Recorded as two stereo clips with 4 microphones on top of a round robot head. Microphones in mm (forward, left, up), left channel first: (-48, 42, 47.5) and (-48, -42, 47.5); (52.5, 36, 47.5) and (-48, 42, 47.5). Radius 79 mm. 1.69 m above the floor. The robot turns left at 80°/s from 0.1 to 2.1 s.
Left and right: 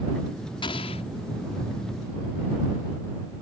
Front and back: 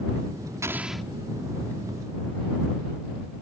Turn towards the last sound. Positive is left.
turn(degrees=-5)